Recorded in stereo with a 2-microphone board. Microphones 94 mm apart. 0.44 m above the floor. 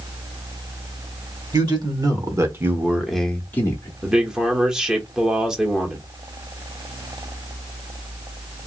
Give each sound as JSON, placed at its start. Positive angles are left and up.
{"t": 1.5, "sound": "a man speaking", "side_deg": -50, "distance_m": 1.3}
{"t": 4.0, "sound": "a man speaking", "side_deg": -5, "distance_m": 0.8}